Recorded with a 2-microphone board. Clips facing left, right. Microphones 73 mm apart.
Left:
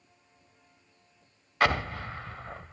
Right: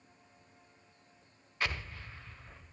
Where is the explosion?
80° left.